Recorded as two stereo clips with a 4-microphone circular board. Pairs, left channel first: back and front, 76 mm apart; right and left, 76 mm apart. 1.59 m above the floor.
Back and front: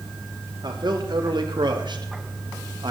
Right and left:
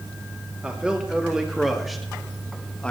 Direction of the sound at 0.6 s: 15° left.